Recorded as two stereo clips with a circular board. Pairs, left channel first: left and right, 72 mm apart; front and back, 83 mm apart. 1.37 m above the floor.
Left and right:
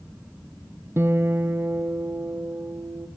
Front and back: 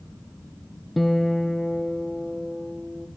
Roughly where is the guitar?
Right.